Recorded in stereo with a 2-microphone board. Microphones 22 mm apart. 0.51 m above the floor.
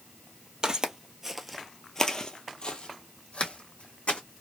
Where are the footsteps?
40° right (ahead or behind), 0.8 m; by 4.2 s 70° left (ahead or behind), 1.7 m.